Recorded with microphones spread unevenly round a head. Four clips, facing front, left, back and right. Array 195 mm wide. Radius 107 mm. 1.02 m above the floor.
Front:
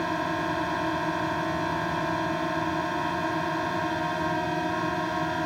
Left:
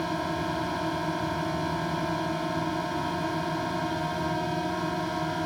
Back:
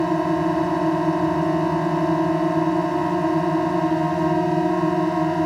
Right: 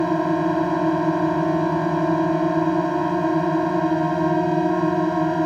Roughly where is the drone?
Behind right.